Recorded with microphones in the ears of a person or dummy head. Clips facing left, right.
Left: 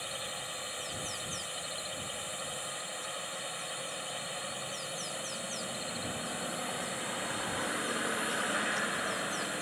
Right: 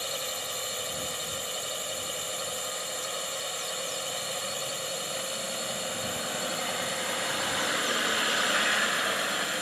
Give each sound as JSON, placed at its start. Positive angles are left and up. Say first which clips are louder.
{"t": 0.0, "sound": "a drone", "louder": "right 6 dB", "side_deg": -50}